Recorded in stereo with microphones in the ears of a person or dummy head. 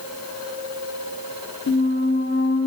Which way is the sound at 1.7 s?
40° left (ahead or behind).